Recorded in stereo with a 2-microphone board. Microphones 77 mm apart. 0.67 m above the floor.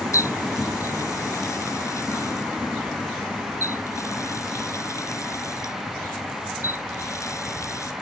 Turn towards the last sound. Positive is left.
turn(degrees=40)  # may be behind; listen again after turning